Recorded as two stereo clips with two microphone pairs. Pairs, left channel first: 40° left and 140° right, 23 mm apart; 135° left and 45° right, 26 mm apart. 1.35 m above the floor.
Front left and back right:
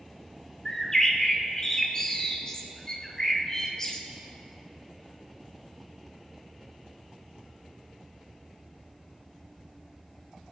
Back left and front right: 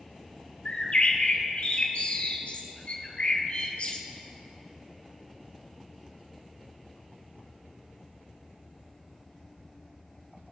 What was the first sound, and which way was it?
A bird, 100° left.